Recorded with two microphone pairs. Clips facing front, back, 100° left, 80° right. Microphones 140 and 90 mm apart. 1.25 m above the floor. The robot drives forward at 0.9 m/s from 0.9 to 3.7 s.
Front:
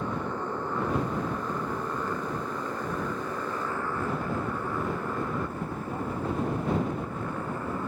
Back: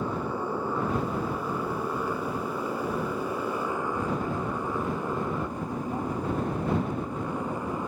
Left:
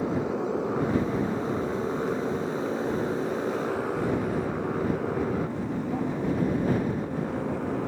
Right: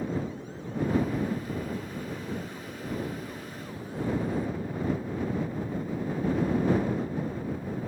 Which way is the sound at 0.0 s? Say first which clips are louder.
Back 2 dB, left 6 dB; 100° left.